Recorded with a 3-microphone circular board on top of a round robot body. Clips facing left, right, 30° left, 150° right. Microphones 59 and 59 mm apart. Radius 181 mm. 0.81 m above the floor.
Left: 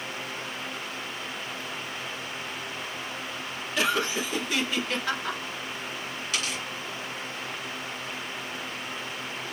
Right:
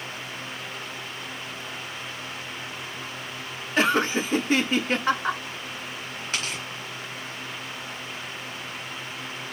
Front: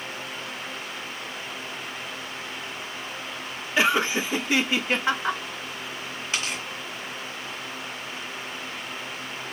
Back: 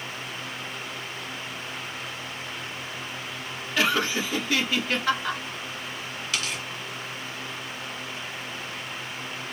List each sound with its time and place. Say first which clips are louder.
3.8 s laughter: right 5 dB, front 2 dB; 40° right, 1.1 m
6.3 s tearing paper: right 1 dB, front 1 dB; 30° right, 1.4 m